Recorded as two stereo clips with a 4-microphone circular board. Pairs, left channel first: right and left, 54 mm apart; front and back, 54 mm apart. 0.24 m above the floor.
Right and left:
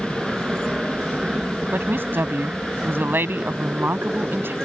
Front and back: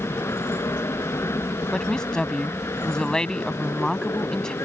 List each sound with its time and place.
0.0 s an aircraft: 15° left
1.7 s a woman speaking: 70° left